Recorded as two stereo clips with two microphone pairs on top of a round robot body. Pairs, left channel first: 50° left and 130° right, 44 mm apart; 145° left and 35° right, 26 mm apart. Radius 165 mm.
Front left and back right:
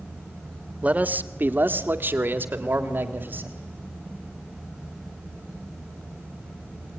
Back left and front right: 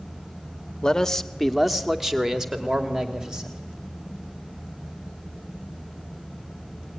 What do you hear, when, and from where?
0.8 s a man speaking: 155° right, 1.3 m; by 3.6 s 85° right, 3.5 m